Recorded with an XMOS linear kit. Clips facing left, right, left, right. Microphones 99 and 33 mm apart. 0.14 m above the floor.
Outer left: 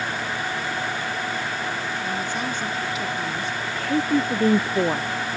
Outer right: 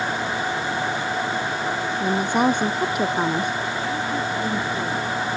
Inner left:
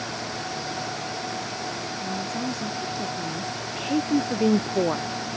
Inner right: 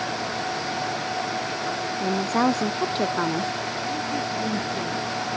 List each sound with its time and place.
2.0 s a woman speaking: 70° right (ahead or behind); by 3.5 s 60° right (ahead or behind)
3.8 s a woman speaking: 70° left (ahead or behind)